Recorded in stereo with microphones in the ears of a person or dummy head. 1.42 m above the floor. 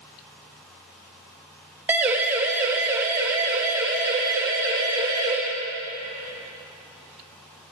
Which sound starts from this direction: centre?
A siren, at 1.9 s.